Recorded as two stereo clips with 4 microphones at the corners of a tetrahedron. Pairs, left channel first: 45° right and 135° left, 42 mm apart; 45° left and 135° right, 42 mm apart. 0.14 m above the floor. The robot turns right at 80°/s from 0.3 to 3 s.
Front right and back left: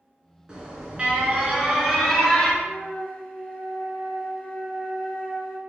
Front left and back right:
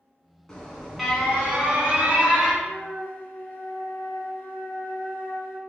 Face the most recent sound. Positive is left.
turn(degrees=15)